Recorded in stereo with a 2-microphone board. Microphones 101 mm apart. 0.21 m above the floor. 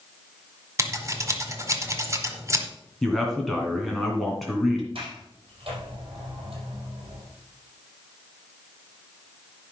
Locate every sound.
0.8 s scissors: 30° right (ahead or behind), 1.6 m
3.0 s a man speaking: 5° left (ahead or behind), 2.0 m
5.0 s a sliding door: 60° right (ahead or behind), 4.5 m